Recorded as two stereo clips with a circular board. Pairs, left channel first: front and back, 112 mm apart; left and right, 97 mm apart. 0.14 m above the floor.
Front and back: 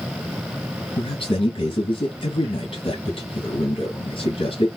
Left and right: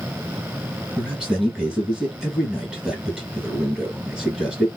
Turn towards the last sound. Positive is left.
turn(degrees=-10)